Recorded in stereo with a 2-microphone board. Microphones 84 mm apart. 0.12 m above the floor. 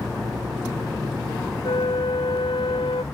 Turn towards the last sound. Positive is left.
turn(degrees=85)